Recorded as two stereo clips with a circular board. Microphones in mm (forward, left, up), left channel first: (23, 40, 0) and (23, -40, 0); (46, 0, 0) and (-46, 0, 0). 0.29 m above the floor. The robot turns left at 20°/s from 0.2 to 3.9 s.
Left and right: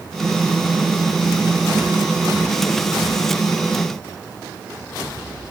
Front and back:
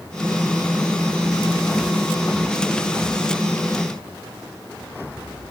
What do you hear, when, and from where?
Only background noise.